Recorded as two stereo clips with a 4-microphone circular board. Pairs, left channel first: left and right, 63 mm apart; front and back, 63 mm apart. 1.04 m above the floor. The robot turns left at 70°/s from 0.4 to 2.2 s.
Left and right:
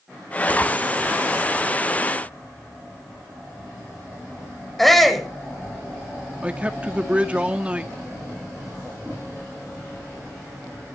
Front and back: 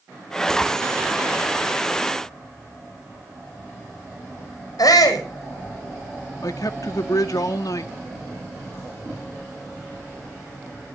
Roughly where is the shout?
Ahead.